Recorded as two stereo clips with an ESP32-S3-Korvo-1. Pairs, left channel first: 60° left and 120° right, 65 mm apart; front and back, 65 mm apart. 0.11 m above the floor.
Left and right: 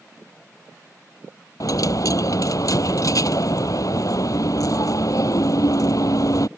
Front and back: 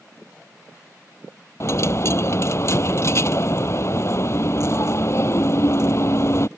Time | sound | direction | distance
1.6 | a dropped coin | 40° left | ?